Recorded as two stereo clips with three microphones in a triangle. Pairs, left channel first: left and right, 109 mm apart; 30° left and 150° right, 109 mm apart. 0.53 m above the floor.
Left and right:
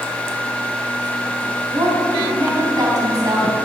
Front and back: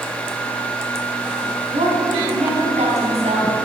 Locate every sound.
1.7 s a woman speaking: 145° right, 3.5 m